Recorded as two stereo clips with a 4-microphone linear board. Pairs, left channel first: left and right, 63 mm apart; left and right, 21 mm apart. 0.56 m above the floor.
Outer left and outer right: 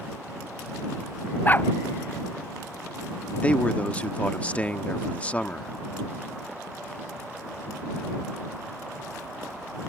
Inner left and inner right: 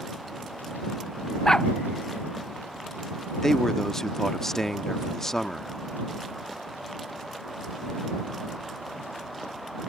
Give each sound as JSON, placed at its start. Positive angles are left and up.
{"t": 1.4, "sound": "a dog barking", "side_deg": 30}
{"t": 3.4, "sound": "a man speaking", "side_deg": 20}